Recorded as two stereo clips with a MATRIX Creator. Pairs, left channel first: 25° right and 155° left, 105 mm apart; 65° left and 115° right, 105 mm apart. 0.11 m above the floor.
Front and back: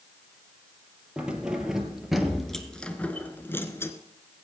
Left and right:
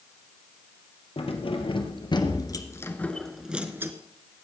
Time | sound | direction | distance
1.2 | keys jangling | 75° left | 2.5 m